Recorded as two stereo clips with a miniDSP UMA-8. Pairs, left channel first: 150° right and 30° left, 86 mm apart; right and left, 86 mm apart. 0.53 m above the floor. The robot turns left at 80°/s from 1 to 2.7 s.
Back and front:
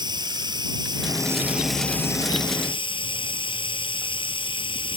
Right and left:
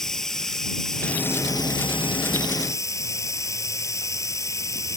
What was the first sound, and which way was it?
Running water, 5° right.